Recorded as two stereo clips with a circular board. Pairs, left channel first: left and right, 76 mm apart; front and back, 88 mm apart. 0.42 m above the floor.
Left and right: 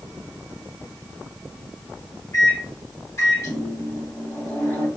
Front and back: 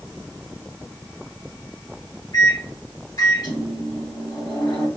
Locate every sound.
2.3 s a microwave: 40° left, 1.9 m